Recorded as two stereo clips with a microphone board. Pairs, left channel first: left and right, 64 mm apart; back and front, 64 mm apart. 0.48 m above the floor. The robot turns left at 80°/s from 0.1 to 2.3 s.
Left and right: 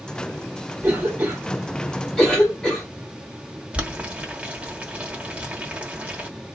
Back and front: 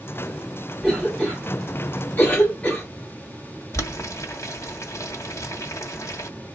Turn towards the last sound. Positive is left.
turn(degrees=-155)